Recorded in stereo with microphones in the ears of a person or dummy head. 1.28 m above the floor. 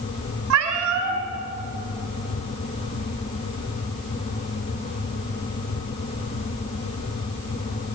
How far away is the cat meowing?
About 3 m.